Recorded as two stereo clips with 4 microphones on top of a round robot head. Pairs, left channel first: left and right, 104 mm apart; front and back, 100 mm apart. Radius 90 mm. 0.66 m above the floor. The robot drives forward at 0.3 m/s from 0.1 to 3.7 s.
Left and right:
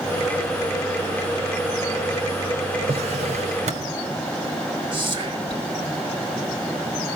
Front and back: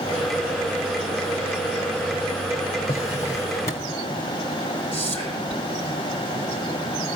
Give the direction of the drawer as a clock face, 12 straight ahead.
2 o'clock.